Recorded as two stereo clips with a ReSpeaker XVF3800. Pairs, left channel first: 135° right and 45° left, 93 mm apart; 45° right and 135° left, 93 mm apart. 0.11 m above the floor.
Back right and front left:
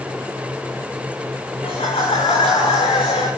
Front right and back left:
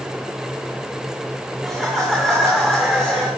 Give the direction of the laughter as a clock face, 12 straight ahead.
4 o'clock.